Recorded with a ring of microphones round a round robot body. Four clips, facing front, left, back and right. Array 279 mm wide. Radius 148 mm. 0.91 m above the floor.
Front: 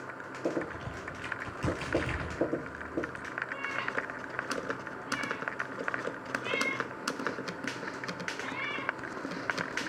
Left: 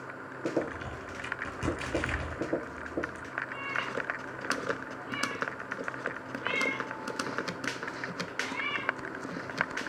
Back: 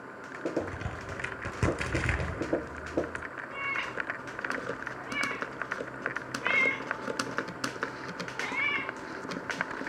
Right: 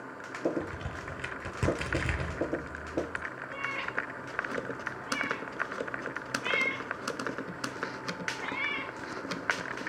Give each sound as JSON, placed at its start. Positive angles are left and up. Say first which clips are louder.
{"t": 0.6, "sound": "a crack", "louder": "left 1 dB, back 1 dB", "azimuth_deg": -155, "distance_m": 5.0}
{"t": 3.5, "sound": "a cat meowing", "louder": "even, even", "azimuth_deg": -155, "distance_m": 5.5}